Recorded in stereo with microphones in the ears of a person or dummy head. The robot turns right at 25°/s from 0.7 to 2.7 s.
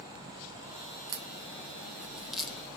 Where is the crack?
30° right (ahead or behind), 0.9 m; by 2.8 s centre (ahead or behind), 0.9 m.